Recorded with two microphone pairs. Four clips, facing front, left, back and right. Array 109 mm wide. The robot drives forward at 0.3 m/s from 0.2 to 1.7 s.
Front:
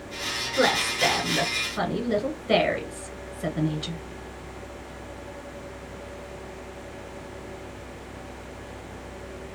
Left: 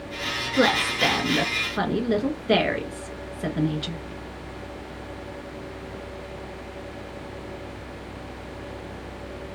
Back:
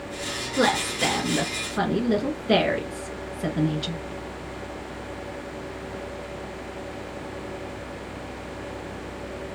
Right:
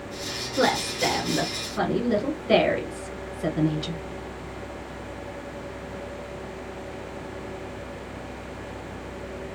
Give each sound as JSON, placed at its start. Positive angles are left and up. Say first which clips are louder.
{"t": 0.6, "sound": "a woman speaking", "louder": "left 2 dB, even", "azimuth_deg": 80, "distance_m": 1.7}